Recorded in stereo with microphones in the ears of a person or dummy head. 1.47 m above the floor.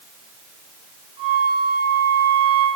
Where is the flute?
25° right (ahead or behind), 7.5 m.